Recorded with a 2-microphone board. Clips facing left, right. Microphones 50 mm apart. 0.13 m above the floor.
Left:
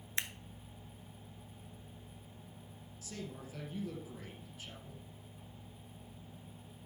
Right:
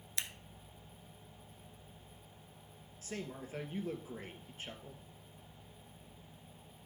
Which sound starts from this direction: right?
A man speaking, at 3.0 s.